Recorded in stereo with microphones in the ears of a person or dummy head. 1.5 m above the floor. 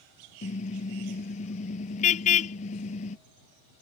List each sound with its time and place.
0.4 s a car horn: 40° left (ahead or behind)